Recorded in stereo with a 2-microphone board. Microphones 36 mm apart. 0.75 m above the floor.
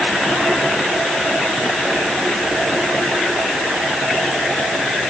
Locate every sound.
Only background noise.